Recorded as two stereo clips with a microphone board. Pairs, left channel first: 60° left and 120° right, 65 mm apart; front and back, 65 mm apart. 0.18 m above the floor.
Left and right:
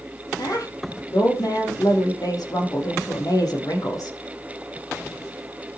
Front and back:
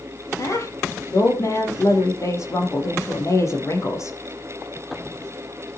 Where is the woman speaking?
40° left, 6.5 m.